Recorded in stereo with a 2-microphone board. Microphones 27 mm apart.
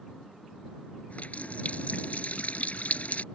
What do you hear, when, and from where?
1.1 s a running tap: 60° left (ahead or behind)